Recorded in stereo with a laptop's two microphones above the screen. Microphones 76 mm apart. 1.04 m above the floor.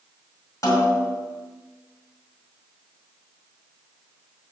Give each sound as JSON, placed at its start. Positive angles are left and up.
{"t": 0.6, "sound": "a snare drum", "side_deg": 45, "distance_m": 1.9}